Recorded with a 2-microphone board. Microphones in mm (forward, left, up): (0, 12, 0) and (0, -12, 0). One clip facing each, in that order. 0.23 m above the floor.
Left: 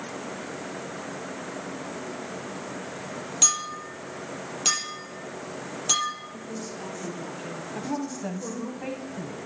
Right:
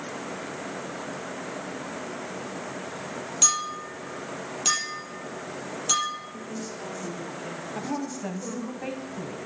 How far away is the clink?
About 5 m.